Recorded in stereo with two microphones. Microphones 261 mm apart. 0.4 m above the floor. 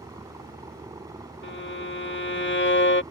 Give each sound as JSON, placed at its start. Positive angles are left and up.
{"t": 0.0, "sound": "a helicopter", "side_deg": -15}
{"t": 1.4, "sound": "a violin", "side_deg": 45}